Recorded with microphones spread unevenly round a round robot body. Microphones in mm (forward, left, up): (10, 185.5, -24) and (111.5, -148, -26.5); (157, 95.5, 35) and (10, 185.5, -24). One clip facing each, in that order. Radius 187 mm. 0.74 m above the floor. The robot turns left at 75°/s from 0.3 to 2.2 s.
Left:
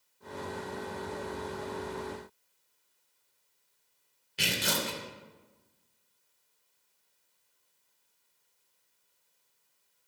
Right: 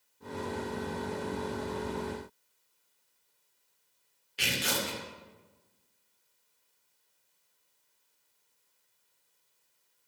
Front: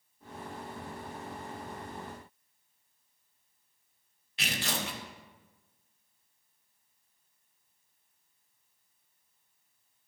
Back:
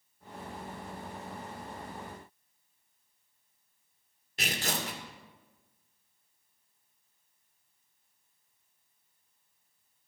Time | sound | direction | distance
4.4 | tearing paper | 115° left | 2.5 m